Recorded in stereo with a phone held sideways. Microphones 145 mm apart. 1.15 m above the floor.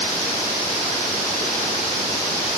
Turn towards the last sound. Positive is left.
No sound to turn to.